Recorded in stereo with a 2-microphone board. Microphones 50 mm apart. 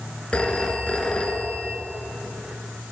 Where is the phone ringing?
25° left (ahead or behind), 1.7 m.